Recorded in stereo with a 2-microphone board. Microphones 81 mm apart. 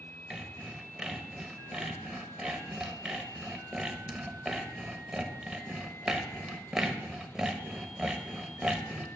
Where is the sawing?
10° right (ahead or behind), 0.8 m.